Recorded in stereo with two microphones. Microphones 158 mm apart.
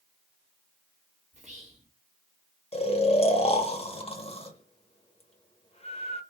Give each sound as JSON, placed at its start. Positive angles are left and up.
{"t": 1.3, "sound": "whispering", "side_deg": -45, "distance_m": 1.5}
{"t": 2.7, "sound": "snoring", "side_deg": 40, "distance_m": 0.8}